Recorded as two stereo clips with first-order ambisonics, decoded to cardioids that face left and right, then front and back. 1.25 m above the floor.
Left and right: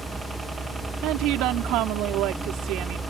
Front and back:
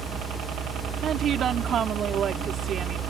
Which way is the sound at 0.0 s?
160° right.